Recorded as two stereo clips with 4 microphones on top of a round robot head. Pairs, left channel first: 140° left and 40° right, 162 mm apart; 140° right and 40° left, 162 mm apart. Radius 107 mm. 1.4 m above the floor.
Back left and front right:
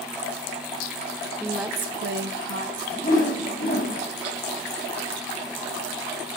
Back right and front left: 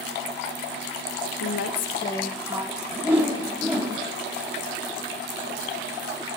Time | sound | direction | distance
1.4 | a woman speaking | 135° right | 1.0 m
2.9 | a whoosh | 120° left | 1.1 m